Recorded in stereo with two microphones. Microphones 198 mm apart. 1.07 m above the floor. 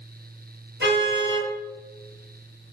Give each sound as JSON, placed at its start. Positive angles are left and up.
{"t": 0.8, "sound": "a car horn", "side_deg": -65, "distance_m": 8.5}